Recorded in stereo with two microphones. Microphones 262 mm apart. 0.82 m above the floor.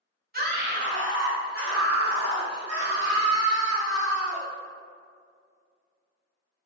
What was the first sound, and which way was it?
A scream, 35° right (ahead or behind).